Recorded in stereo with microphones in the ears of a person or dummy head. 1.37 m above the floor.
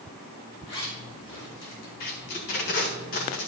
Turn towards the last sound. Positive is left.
turn(degrees=40)  # may be behind; listen again after turning